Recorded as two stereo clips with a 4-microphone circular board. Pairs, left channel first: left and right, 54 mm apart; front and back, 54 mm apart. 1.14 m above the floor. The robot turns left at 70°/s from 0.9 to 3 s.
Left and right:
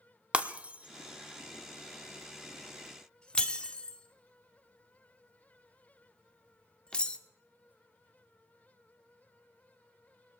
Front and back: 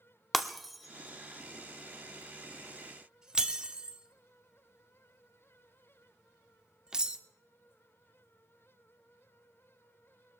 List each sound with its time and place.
0.3 s breaking glass: 85° right, 0.7 m; by 7.2 s 125° left, 0.7 m